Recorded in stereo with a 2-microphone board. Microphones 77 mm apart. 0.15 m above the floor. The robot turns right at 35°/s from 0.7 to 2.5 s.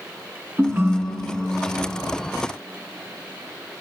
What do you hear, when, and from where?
0.6 s a ringtone: 50° right, 1.2 m; by 1.9 s 10° right, 1.2 m